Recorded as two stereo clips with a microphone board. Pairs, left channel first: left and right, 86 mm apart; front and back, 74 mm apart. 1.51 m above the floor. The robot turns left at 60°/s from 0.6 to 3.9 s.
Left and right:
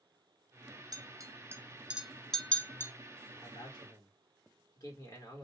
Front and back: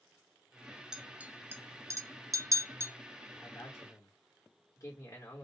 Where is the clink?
100° right, 0.5 m; by 2.9 s 140° left, 0.5 m.